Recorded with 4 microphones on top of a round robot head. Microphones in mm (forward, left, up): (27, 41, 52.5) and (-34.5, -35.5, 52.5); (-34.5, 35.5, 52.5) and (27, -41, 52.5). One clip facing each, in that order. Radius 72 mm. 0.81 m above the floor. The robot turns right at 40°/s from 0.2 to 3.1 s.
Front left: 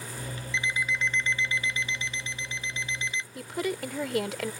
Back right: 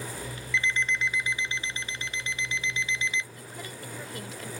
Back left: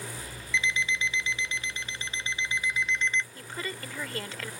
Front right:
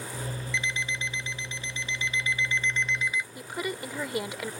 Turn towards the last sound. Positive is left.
turn(degrees=25)